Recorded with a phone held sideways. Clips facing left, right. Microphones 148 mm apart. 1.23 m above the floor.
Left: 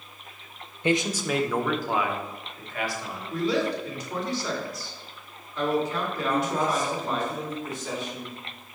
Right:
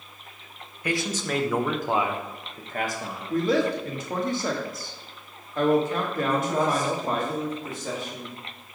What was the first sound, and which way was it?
A man speaking, 25° left (ahead or behind).